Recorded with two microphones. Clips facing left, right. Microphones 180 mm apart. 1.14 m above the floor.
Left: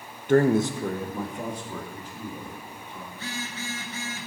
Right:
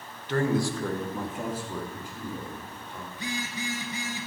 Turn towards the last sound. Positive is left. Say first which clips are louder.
# right 2 dB
turn(degrees=-15)  # may be behind; listen again after turning